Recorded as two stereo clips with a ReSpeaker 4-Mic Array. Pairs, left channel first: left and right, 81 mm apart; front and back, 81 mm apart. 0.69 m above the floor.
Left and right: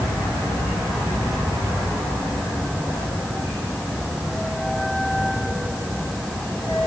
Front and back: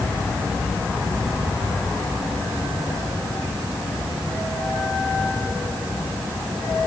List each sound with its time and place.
Only background noise.